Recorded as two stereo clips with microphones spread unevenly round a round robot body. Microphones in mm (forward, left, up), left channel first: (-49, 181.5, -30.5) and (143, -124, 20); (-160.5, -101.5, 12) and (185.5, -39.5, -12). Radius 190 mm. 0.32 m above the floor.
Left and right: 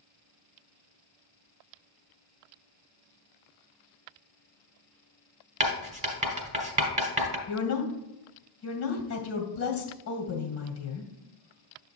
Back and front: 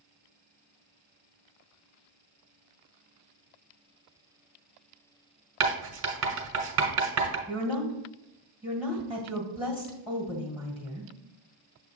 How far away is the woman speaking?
About 1.8 m.